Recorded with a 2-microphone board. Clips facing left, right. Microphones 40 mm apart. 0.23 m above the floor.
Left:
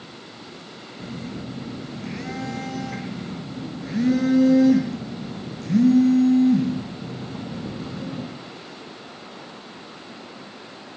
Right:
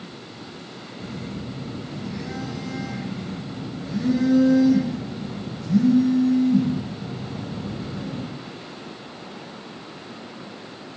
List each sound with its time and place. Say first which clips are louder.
1.0 s a phone buzzing: even; 65° left (ahead or behind), 3 m